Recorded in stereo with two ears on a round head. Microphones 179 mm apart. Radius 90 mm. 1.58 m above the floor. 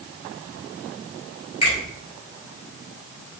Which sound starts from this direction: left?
A finger snap, at 1.6 s.